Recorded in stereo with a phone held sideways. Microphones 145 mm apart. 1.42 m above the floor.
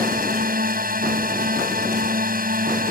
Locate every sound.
0.0 s a drone: 85° right